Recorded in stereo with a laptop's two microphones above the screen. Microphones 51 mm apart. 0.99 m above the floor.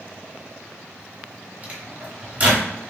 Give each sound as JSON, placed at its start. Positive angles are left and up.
{"t": 1.6, "sound": "a microwave", "side_deg": -25, "distance_m": 0.9}